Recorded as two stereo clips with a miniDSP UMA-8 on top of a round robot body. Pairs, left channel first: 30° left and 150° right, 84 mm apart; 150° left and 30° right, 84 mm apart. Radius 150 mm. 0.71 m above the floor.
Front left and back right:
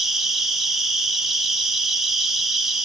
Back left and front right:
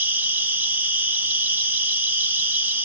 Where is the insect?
65° right, 1.3 m.